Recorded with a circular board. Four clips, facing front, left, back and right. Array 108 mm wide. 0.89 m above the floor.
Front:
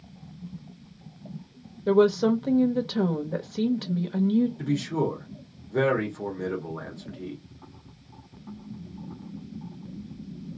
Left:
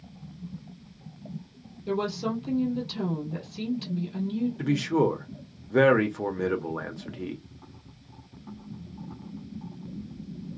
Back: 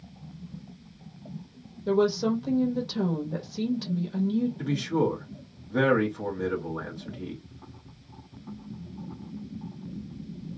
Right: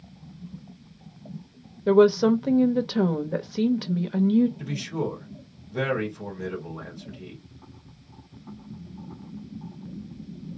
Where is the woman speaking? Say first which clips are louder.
Right 12 dB, front 4 dB; 70° right, 0.8 m.